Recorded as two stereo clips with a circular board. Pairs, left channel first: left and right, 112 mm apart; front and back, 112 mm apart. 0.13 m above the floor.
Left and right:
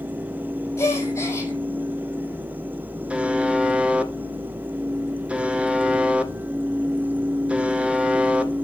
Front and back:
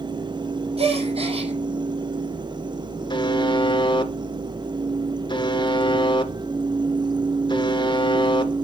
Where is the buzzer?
15° right, 1.4 m.